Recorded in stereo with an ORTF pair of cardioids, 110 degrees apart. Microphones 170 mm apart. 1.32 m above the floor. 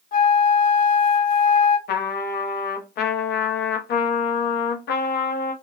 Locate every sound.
0.1 s a flute: 50° left, 0.7 m
1.9 s a trumpet: 65° left, 0.7 m